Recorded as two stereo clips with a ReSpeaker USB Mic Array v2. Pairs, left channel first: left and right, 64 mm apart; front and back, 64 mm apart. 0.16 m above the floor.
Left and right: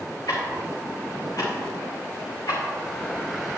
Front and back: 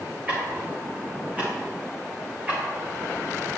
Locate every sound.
0.3 s ticking: 115° left, 3 m